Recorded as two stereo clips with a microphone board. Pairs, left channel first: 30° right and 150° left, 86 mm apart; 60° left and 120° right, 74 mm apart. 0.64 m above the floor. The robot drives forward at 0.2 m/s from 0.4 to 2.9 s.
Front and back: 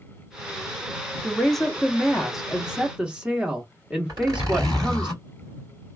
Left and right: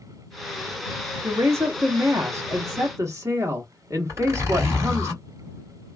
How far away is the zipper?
About 2 m.